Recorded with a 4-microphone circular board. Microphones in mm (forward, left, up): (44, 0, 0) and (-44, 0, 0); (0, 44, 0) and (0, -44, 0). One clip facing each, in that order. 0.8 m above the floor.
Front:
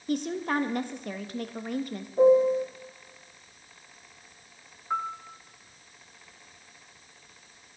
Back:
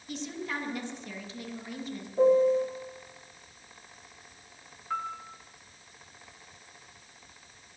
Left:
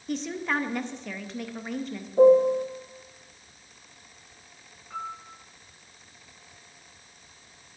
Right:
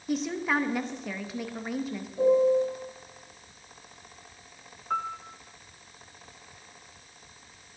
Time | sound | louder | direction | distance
0.1 | a woman speaking | front 8 dB, right 1 dB | 5° right | 0.6 m
2.2 | a piano | front 2 dB, left 4 dB | 75° left | 0.8 m
4.9 | a piano | front 3 dB, right 6 dB | 75° right | 0.5 m